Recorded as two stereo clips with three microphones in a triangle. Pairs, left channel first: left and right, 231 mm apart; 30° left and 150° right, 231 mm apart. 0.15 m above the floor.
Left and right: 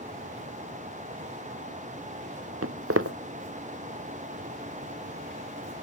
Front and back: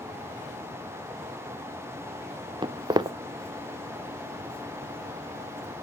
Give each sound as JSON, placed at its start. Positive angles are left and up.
{"t": 2.6, "sound": "footsteps", "azimuth_deg": -80, "distance_m": 0.9}